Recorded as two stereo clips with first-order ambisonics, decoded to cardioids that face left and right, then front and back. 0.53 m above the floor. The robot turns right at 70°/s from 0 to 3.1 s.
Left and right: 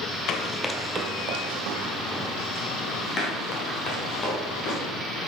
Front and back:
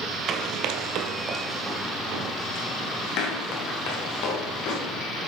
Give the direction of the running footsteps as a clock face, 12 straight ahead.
8 o'clock.